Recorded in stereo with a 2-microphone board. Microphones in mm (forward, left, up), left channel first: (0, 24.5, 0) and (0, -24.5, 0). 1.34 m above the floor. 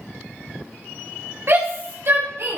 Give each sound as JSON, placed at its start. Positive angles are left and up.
{"t": 1.5, "sound": "a shout", "side_deg": -55, "distance_m": 3.5}